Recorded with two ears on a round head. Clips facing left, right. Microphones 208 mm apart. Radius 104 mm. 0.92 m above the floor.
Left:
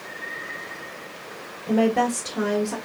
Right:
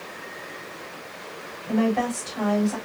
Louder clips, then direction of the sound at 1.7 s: Left 2 dB; 60° left (ahead or behind).